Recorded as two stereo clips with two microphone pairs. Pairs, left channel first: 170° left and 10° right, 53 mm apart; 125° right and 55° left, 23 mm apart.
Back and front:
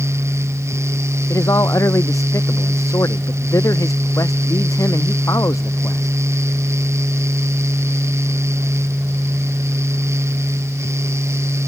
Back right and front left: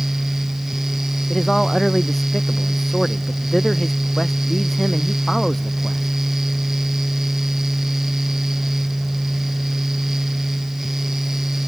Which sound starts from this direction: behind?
A man speaking, at 1.3 s.